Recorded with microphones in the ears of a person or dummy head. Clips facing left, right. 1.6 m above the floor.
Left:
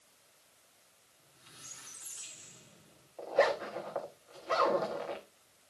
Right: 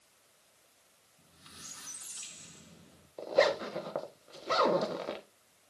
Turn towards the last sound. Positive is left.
turn(degrees=-50)  # may be behind; listen again after turning